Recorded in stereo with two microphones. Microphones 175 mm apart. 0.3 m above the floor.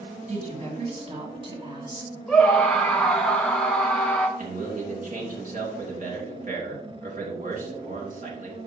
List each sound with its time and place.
0.3 s a woman speaking: 45° right (ahead or behind), 3 m; by 2.2 s 25° right (ahead or behind), 3 m
2.3 s a scream: 5° left (ahead or behind), 1.1 m
4.4 s a man speaking: 50° right (ahead or behind), 3 m